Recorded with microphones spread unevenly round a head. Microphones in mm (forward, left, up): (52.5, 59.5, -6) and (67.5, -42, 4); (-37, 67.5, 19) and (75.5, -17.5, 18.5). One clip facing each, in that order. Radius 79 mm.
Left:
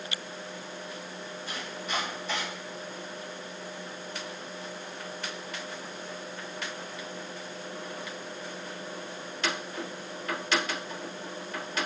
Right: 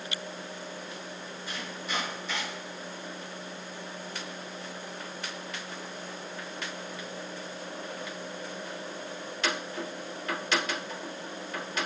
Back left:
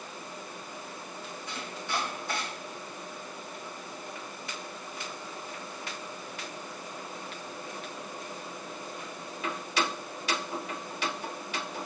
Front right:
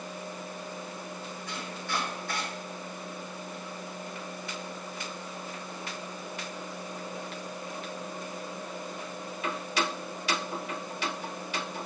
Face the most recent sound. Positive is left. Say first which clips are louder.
# even, even
turn(degrees=85)